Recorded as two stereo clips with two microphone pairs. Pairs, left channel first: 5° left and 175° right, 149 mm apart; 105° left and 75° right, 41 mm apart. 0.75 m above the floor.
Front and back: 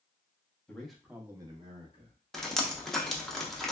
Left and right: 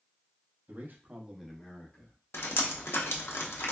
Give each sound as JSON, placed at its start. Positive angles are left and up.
{"t": 0.7, "sound": "a man speaking", "azimuth_deg": -80, "distance_m": 0.9}
{"t": 2.3, "sound": "dripping", "azimuth_deg": 90, "distance_m": 0.5}